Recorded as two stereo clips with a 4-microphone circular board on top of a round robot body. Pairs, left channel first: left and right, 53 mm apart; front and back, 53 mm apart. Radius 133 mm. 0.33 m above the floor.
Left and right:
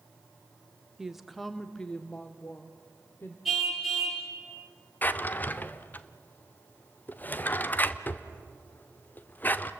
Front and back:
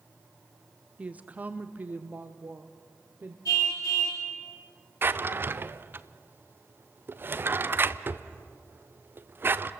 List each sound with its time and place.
1.0 s a woman speaking: 155° right, 1.2 m; by 3.4 s 130° left, 1.8 m
3.5 s a car horn: 5° right, 5.5 m
5.0 s a drawer: 140° left, 0.9 m